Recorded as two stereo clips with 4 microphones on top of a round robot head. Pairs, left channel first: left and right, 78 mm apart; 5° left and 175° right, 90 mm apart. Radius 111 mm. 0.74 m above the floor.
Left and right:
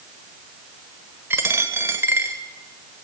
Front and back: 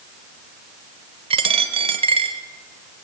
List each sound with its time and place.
1.3 s a dropped coin: 155° right, 1.2 m